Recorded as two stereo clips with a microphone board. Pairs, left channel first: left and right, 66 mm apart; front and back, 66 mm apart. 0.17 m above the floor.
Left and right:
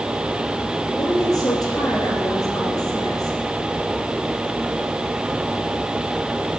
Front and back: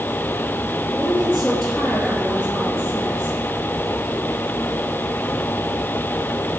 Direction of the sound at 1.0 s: 85° left.